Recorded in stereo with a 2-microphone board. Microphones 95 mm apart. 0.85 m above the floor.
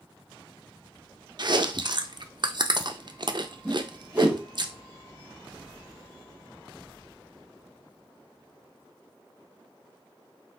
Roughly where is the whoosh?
Centre.